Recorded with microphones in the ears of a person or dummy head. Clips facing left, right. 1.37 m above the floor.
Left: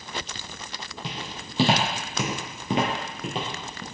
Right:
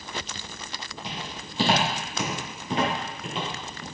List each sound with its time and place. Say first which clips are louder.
1.0 s footsteps: left 1 dB; 50° left (ahead or behind), 2.5 m; by 3.8 s 30° left (ahead or behind), 1.6 m